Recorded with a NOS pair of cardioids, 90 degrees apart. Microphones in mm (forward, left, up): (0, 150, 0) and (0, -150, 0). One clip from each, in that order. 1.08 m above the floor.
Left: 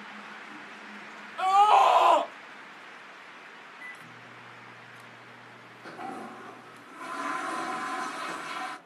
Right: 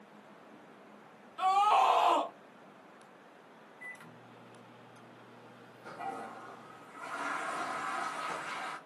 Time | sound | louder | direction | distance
1.4 | a scream | left 6 dB | 40° left | 0.7 m
3.8 | a microwave | left 2 dB | 25° left | 0.6 m
5.8 | a toilet flushing | left 2 dB | 60° left | 0.8 m